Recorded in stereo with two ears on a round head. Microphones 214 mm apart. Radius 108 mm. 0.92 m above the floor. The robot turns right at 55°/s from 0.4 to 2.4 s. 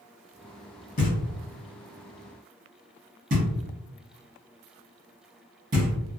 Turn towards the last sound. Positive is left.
turn(degrees=-35)  # may be behind; listen again after turning